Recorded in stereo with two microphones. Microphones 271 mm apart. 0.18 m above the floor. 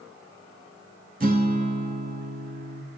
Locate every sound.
1.2 s a guitar: 30° right (ahead or behind), 0.6 m